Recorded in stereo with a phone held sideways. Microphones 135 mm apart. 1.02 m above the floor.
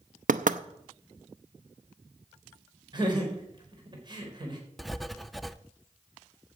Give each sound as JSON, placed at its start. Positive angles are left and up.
{"t": 0.3, "sound": "knocking", "side_deg": -80, "distance_m": 0.6}
{"t": 2.9, "sound": "laughter", "side_deg": -35, "distance_m": 3.5}
{"t": 4.8, "sound": "writing", "side_deg": 0, "distance_m": 0.5}